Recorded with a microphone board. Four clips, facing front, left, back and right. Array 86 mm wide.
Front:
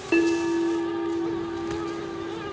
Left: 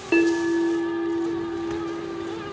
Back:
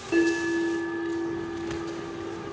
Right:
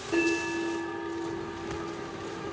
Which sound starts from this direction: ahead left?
A bell, at 0.1 s.